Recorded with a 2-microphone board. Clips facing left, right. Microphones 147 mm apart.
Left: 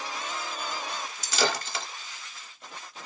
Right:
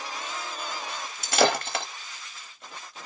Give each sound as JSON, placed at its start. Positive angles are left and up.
{"t": 1.2, "sound": "breaking glass", "side_deg": -60, "distance_m": 0.6}